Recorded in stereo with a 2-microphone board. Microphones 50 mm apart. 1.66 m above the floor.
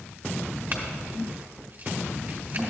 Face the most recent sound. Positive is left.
turn(degrees=-40)  # may be behind; listen again after turning